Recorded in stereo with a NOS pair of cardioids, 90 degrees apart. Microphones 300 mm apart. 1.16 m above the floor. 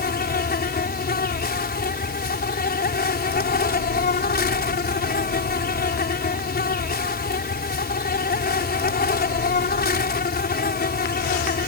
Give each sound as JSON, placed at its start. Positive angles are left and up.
{"t": 0.0, "sound": "an insect", "azimuth_deg": 30}